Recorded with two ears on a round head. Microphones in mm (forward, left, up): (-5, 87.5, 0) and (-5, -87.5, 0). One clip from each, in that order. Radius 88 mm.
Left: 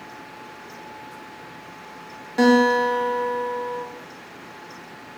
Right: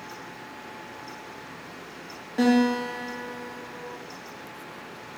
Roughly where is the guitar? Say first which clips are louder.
Left 7 dB; left.